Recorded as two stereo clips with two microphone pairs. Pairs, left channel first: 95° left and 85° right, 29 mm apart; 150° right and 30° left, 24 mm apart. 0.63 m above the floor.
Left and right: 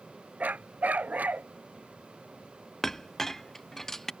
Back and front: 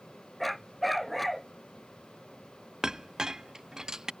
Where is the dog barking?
60° right.